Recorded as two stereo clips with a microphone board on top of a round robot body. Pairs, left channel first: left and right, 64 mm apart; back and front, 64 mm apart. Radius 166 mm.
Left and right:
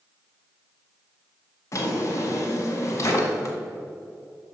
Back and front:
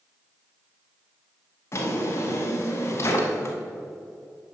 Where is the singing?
No singing in this recording.